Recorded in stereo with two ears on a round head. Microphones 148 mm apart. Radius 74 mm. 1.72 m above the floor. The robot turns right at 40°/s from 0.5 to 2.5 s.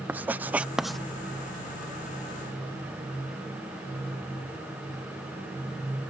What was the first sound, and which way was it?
Writing, 10° right (ahead or behind).